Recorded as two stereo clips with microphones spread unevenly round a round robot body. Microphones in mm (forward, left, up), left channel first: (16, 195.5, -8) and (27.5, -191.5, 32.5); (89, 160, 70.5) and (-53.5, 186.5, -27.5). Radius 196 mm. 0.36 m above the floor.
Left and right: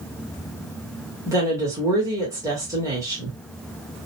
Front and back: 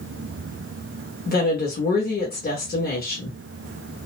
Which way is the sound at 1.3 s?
5° right.